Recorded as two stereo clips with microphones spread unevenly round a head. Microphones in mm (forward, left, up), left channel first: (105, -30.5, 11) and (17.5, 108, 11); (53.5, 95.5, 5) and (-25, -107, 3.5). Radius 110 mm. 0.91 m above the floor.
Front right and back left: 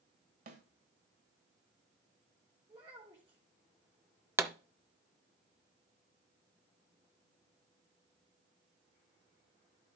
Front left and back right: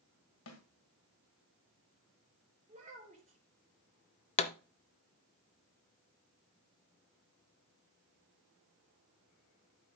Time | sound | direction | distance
0.5 | a snare drum | 95° left | 2 m
2.7 | a child speaking | 170° right | 3 m
4.4 | a pop | 65° left | 0.7 m